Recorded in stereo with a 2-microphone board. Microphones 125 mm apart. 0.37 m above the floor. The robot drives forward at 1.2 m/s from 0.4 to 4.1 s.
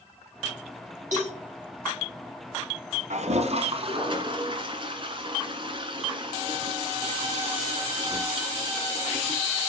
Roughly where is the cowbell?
Right.